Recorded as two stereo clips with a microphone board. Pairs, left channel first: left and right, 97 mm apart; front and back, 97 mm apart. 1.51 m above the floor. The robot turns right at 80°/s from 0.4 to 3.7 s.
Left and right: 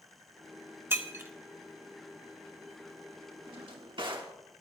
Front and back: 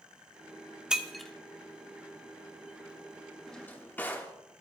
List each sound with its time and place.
0.9 s breaking glass: 110° right, 1.1 m; by 1.3 s 75° right, 1.1 m
3.5 s a drawer: 90° right, 1.3 m; by 4.4 s 70° right, 1.3 m